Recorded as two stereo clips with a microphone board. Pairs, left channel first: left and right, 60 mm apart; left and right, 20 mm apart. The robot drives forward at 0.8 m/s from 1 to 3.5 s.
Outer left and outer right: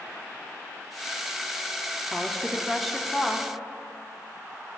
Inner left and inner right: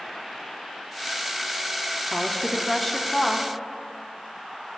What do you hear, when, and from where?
2.1 s a woman speaking: centre (ahead or behind), 0.6 m